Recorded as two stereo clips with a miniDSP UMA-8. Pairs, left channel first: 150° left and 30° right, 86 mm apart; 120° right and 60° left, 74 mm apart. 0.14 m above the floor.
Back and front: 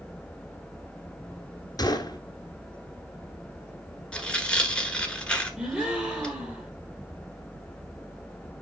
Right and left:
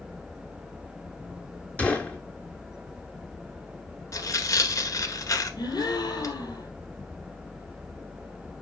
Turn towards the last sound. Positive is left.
turn(degrees=-110)